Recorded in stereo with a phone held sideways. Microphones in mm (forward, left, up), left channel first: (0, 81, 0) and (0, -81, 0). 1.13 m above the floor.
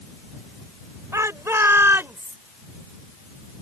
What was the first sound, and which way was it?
A shout, 20° right (ahead or behind).